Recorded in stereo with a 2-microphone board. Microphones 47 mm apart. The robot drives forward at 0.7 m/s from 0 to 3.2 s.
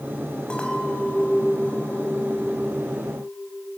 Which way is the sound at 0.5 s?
20° left (ahead or behind).